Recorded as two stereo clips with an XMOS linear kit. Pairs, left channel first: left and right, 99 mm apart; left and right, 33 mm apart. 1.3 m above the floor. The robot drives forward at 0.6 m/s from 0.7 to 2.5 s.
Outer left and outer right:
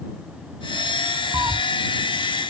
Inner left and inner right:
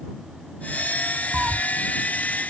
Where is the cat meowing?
30° right (ahead or behind).